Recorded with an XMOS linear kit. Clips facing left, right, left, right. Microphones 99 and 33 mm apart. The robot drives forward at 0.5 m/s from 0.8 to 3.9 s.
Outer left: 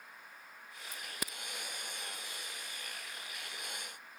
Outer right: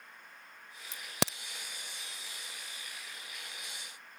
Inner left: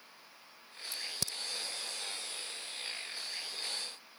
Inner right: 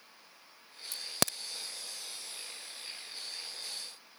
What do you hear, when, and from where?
0.9 s a crack: 70° right (ahead or behind)